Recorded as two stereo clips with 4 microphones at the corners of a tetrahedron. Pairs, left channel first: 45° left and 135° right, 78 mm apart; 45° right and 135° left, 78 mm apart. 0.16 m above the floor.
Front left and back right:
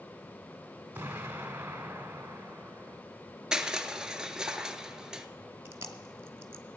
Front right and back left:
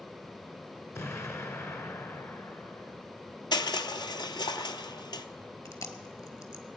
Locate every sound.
0.9 s an explosion: 80° right, 1.0 m
3.5 s crushing: 55° right, 0.6 m
5.7 s chewing: 80° right, 1.0 m